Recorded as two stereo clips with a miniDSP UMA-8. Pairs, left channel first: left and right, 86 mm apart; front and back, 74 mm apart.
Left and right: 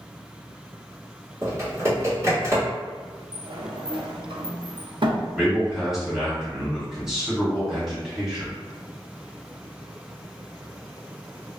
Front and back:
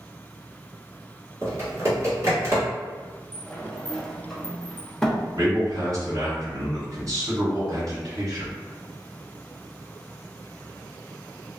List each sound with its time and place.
1.4 s typing on a keyboard: 140° right, 1.3 m
3.3 s a sliding door: 85° right, 0.5 m
5.3 s a man speaking: 170° right, 1.8 m